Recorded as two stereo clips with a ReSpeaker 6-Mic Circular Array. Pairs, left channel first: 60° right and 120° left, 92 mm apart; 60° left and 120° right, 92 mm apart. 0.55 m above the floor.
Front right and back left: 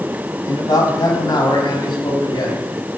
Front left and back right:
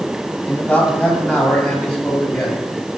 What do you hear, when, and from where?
0.5 s a man speaking: 20° right, 4.5 m; by 2.6 s 30° right, 4 m